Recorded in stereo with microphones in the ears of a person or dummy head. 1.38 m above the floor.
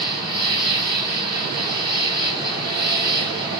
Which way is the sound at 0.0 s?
25° left (ahead or behind).